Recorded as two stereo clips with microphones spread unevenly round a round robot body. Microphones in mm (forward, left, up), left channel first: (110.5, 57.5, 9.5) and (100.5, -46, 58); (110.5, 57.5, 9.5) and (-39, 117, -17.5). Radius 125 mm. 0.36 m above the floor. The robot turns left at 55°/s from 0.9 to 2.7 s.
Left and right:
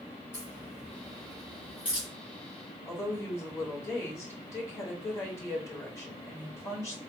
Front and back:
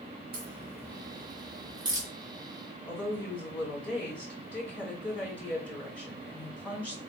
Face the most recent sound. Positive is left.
turn(degrees=65)